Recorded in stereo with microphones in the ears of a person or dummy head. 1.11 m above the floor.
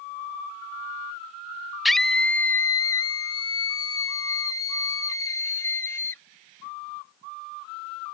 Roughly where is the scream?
Centre.